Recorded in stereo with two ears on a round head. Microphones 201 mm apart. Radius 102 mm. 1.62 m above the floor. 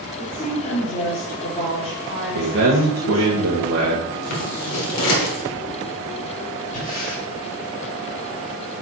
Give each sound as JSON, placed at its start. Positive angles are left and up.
{"t": 0.2, "sound": "a woman speaking", "side_deg": 35, "distance_m": 3.0}
{"t": 2.4, "sound": "a man speaking", "side_deg": -60, "distance_m": 1.5}
{"t": 4.1, "sound": "scissors", "side_deg": 75, "distance_m": 1.9}
{"t": 6.7, "sound": "breathing", "side_deg": 35, "distance_m": 3.5}